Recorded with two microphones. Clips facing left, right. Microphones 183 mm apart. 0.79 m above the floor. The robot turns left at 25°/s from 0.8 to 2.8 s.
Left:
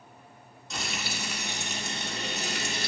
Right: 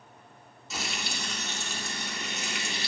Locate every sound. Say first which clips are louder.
0.7 s frying: left 1 dB; straight behind, 2.0 m; by 2.9 s 130° left, 2.0 m